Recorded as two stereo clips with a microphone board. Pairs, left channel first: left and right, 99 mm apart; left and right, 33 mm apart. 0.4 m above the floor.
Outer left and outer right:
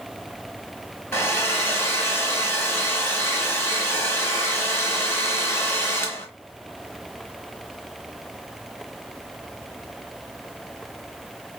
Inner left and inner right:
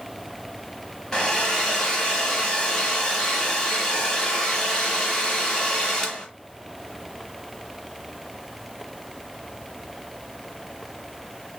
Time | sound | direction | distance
1.1 | a hair dryer | 25° left (ahead or behind) | 1.4 m